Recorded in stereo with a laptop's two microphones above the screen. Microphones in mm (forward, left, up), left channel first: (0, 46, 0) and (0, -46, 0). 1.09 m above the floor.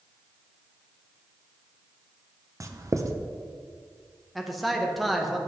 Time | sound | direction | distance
2.6 | writing | 40° right (ahead or behind) | 0.7 m
4.3 | a man speaking | centre (ahead or behind) | 0.8 m